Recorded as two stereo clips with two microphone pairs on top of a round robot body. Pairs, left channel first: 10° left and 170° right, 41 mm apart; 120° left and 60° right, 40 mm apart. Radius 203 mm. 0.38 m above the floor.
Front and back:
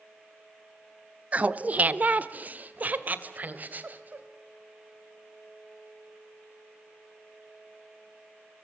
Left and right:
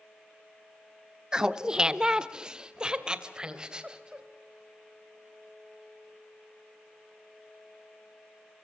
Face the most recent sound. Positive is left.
turn(degrees=-125)